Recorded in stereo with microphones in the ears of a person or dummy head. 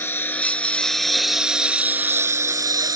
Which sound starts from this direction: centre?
A lawn mower, at 0.0 s.